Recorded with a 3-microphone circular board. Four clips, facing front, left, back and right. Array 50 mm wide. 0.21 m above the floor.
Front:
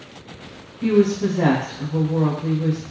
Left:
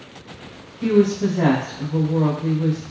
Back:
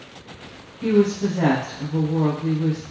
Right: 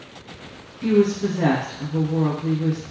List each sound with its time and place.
0.8 s a woman speaking: 95° left, 2.5 m